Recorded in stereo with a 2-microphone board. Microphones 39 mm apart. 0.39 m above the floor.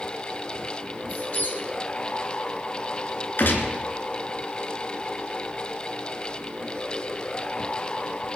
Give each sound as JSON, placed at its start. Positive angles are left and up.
{"t": 1.1, "sound": "a squeak", "side_deg": 55, "distance_m": 2.5}
{"t": 3.4, "sound": "a gunshot", "side_deg": 60, "distance_m": 2.5}